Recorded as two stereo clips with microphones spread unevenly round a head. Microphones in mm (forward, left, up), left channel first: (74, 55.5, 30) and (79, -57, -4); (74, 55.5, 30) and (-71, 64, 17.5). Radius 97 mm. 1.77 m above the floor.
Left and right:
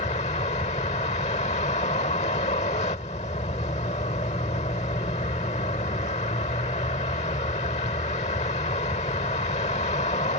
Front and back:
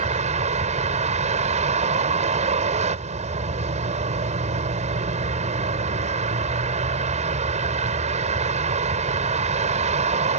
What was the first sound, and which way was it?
A vehicle, 135° left.